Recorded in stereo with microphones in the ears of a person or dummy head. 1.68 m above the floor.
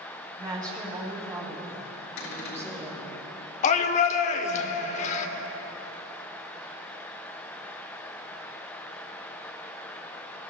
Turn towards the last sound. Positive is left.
turn(degrees=40)  # may be behind; listen again after turning